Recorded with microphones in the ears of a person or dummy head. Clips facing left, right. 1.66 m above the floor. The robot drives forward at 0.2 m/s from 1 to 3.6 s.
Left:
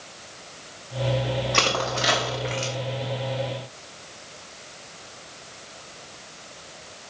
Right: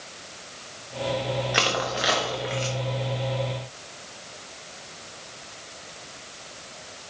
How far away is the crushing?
About 1.4 m.